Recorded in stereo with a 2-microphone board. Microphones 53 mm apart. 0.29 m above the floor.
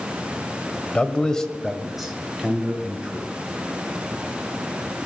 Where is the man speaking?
20° left (ahead or behind), 1.2 m; by 3.3 s 20° right (ahead or behind), 3 m.